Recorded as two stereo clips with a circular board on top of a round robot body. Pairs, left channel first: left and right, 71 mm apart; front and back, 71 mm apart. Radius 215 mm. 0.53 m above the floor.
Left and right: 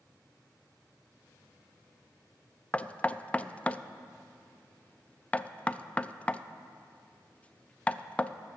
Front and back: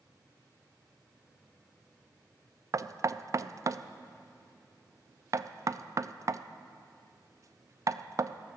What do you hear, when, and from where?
2.7 s knocking: 160° left, 0.6 m